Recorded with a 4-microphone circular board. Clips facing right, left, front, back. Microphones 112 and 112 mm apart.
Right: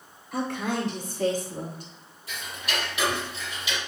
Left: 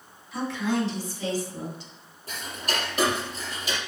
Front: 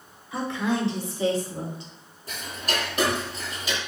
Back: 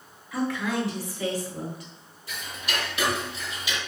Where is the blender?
I don't hear a blender.